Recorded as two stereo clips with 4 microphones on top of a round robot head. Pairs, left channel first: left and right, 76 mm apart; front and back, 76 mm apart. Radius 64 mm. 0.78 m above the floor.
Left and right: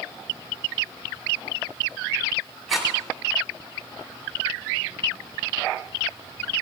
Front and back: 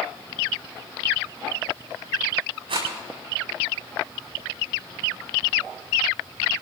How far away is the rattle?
About 8 m.